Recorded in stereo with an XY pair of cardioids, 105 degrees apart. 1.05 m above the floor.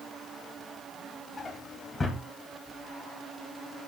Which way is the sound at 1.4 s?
25° left.